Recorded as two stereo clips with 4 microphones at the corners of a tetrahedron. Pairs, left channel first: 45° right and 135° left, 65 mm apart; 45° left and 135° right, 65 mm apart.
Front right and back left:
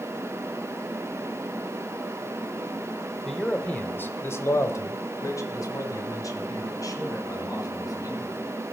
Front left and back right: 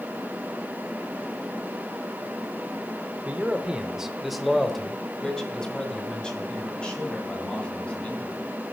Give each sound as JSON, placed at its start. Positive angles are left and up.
{"t": 3.2, "sound": "a man speaking", "azimuth_deg": -120, "distance_m": 0.9}